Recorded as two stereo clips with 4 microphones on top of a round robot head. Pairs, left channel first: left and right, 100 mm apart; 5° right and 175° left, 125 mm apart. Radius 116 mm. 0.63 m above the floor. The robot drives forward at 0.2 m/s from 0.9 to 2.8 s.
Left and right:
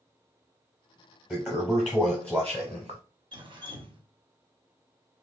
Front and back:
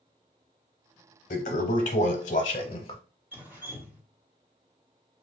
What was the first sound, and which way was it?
A toilet flushing, 5° left.